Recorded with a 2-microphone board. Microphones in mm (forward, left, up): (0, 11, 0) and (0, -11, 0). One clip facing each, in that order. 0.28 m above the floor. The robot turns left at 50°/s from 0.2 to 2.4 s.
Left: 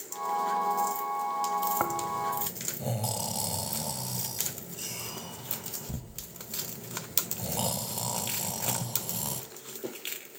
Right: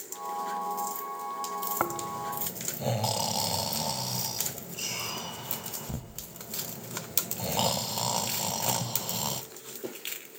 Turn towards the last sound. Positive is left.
turn(degrees=-30)  # may be behind; listen again after turning